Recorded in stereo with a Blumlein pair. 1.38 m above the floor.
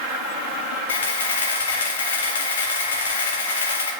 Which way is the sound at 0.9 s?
65° left.